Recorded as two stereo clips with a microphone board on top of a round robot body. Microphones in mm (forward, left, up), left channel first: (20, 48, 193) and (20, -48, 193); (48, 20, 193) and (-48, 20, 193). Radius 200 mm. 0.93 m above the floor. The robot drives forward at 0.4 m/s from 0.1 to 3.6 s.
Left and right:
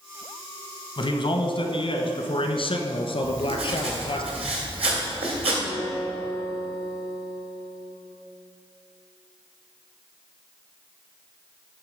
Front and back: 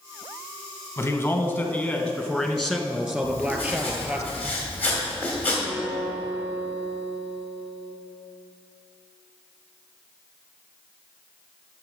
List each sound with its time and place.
1.0 s a man speaking: 65° left, 1.6 m; by 4.2 s 110° left, 1.5 m
3.2 s writing: 70° right, 2 m; by 5.6 s 75° right, 2 m
5.7 s a guitar: 120° left, 2 m